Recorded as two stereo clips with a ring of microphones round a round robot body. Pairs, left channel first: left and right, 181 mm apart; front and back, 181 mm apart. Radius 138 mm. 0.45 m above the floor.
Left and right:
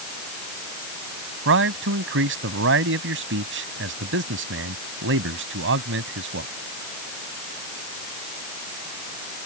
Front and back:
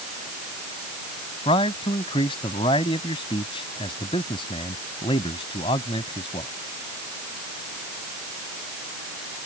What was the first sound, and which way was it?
A man speaking, 70° right.